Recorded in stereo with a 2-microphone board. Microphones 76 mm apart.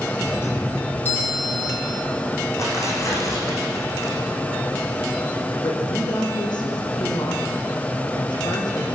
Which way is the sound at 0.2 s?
25° left (ahead or behind).